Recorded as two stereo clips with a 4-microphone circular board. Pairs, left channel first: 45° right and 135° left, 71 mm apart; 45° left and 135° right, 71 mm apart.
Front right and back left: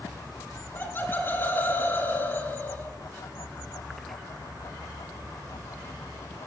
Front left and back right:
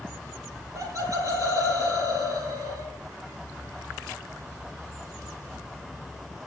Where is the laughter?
100° right, 4.5 m.